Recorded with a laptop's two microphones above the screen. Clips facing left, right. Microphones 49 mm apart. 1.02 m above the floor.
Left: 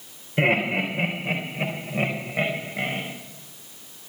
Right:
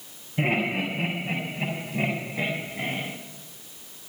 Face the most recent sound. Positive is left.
turn(degrees=85)